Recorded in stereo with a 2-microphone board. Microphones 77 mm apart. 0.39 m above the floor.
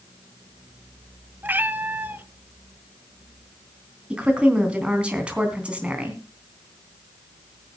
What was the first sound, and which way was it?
A cat meowing, 25° right (ahead or behind).